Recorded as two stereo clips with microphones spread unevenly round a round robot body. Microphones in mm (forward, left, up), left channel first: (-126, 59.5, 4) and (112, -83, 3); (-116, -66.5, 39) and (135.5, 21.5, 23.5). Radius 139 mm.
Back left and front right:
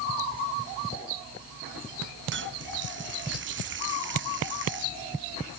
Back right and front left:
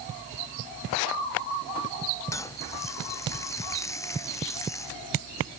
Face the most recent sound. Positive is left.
turn(degrees=-80)